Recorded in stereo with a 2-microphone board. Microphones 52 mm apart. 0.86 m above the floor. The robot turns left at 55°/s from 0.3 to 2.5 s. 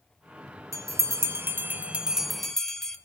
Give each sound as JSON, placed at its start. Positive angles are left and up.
{"t": 0.7, "sound": "a bell", "side_deg": -85, "distance_m": 0.9}